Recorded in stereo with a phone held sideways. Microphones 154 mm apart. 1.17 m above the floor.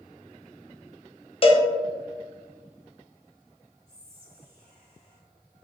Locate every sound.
1.4 s a cowbell: 40° left (ahead or behind), 0.7 m
3.9 s whispering: 70° right (ahead or behind), 1.0 m